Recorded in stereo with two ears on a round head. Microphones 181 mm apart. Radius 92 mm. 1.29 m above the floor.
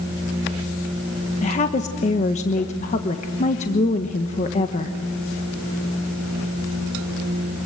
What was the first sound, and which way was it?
A woman speaking, 35° left (ahead or behind).